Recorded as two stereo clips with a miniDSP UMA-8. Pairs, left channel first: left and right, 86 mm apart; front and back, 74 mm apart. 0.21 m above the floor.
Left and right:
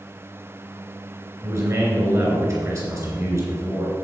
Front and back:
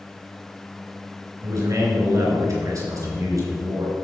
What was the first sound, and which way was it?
A man speaking, 140° right.